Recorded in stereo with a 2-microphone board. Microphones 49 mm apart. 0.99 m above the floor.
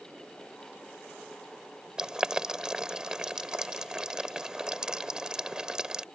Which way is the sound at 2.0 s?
15° right (ahead or behind).